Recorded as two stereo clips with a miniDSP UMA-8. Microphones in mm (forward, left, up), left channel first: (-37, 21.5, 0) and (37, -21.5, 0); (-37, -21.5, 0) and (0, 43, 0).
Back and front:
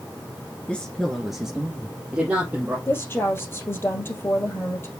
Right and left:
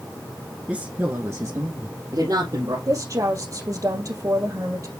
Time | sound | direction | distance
0.7 | a woman speaking | 100° left | 1.6 m
2.9 | a woman speaking | 90° left | 2.5 m